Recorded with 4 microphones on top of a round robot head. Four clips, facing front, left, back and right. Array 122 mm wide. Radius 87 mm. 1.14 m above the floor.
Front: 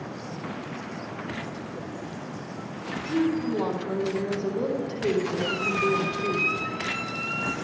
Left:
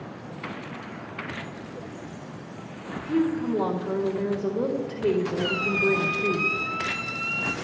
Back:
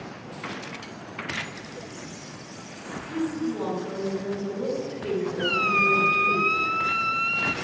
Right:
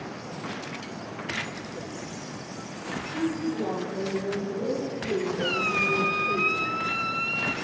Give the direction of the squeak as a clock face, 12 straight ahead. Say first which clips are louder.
Left 2 dB, back 2 dB; 6 o'clock.